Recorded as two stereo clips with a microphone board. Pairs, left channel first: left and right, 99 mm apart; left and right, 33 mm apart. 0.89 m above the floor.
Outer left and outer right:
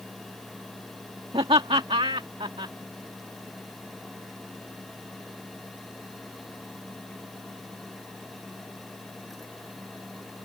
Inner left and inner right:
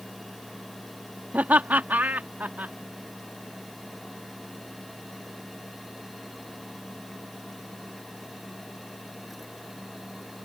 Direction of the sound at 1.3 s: 65° right (ahead or behind).